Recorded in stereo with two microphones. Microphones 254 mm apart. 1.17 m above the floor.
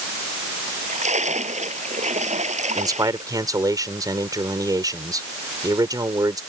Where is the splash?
25° right (ahead or behind).